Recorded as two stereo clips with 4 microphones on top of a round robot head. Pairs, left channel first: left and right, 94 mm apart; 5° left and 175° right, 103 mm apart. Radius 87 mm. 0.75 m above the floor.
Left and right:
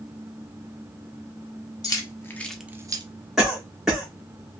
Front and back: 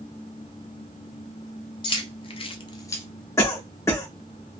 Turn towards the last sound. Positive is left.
turn(degrees=-5)